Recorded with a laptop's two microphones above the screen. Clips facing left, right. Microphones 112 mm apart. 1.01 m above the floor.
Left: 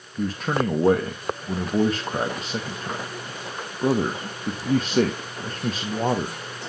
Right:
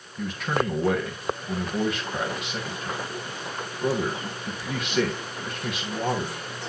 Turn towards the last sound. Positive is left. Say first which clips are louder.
# left 2 dB
turn(degrees=35)  # may be behind; listen again after turning